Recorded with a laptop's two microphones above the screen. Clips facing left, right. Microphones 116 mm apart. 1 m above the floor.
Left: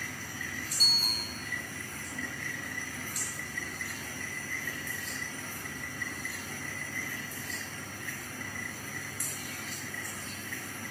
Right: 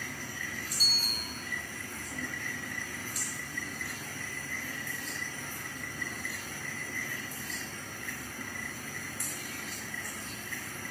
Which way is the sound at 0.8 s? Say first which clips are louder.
Left 1 dB; 60° left (ahead or behind).